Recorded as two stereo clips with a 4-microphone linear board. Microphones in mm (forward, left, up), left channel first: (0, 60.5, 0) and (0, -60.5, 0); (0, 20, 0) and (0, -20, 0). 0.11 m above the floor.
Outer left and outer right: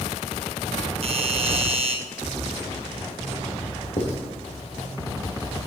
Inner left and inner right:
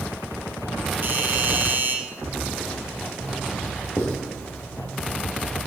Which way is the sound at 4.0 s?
60° left (ahead or behind).